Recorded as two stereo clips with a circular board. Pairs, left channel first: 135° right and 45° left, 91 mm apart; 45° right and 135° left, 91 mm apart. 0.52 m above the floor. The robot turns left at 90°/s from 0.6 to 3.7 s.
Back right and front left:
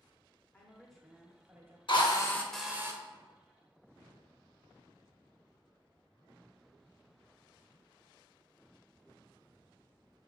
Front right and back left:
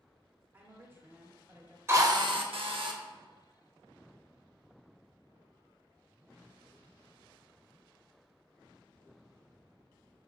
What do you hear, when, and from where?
0.5 s a woman speaking: 170° left, 0.7 m; by 1.8 s 65° left, 0.7 m
1.9 s a drill: 160° right, 0.5 m; by 3.0 s 100° left, 0.5 m